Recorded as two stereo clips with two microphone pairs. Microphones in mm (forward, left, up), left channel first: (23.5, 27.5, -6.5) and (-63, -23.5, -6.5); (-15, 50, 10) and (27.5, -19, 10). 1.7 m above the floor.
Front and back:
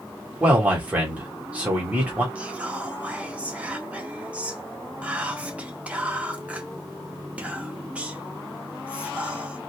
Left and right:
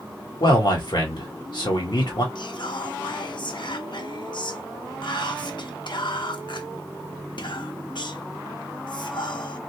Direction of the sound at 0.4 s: 135° left.